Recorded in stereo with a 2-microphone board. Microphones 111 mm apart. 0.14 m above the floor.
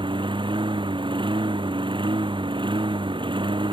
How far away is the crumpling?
I don't hear crumpling.